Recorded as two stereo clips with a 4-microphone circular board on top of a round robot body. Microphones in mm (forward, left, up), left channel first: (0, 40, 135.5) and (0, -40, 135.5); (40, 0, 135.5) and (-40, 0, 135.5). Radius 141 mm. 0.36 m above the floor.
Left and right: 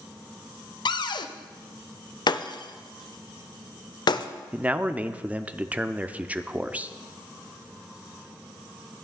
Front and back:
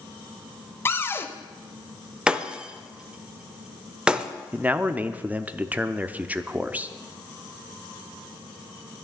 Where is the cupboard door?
65° left, 0.7 m.